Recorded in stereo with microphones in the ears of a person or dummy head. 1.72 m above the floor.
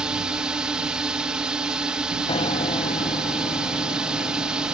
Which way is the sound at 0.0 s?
5° right (ahead or behind).